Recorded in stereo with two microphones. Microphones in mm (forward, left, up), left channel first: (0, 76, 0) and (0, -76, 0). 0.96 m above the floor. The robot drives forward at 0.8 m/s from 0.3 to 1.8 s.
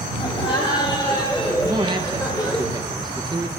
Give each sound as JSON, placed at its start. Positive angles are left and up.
{"t": 0.2, "sound": "laughter", "side_deg": 35, "distance_m": 3.0}
{"t": 1.6, "sound": "a man speaking", "side_deg": -25, "distance_m": 1.0}